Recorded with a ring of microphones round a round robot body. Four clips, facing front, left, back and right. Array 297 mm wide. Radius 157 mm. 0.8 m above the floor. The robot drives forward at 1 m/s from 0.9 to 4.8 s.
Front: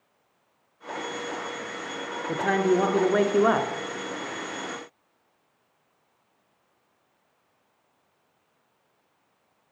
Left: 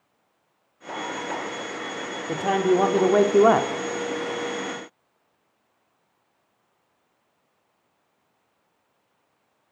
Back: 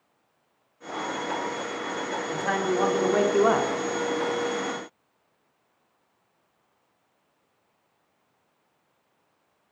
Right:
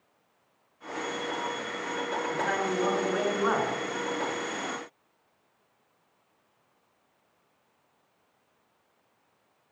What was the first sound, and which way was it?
A man speaking, 55° left.